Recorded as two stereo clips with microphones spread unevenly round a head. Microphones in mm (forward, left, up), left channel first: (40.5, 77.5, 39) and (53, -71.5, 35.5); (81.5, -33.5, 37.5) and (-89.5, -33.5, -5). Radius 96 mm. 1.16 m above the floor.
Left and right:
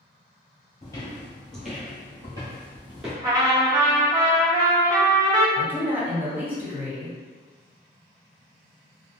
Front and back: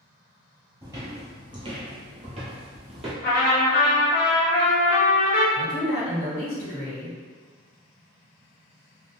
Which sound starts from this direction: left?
Footsteps, at 0.8 s.